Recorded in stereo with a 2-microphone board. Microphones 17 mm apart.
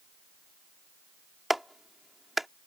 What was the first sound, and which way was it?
A clap, 10° right (ahead or behind).